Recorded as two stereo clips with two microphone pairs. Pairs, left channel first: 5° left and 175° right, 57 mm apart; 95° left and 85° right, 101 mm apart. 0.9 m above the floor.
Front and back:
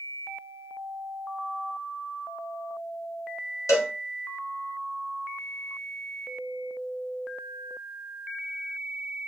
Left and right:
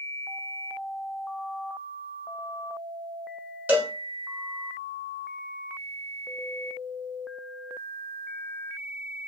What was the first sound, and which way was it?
A cowbell, 10° right.